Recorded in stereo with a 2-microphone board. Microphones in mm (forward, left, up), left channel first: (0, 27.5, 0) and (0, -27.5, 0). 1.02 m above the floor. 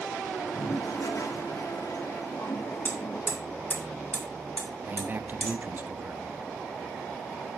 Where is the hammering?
25° left (ahead or behind), 3.5 m.